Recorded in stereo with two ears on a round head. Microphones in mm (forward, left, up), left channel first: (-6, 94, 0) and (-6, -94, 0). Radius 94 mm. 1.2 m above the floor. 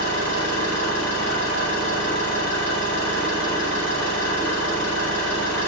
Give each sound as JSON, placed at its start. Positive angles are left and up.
{"t": 0.0, "sound": "an engine running", "side_deg": 60, "distance_m": 6.5}